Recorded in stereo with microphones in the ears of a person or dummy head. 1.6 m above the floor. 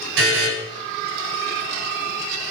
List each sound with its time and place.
0.2 s a buzzer: 75° right (ahead or behind), 6.5 m